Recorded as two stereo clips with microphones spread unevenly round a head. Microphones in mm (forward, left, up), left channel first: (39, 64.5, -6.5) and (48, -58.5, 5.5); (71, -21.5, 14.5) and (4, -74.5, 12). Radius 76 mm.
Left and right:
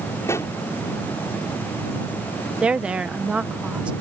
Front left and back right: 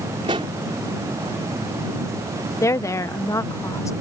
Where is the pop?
170° left.